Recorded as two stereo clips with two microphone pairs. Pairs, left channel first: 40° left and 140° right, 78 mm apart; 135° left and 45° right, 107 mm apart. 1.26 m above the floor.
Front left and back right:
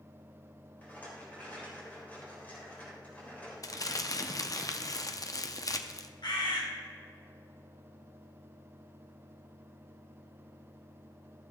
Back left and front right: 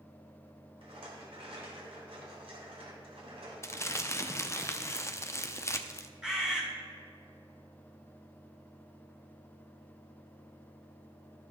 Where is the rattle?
30° right, 3 m.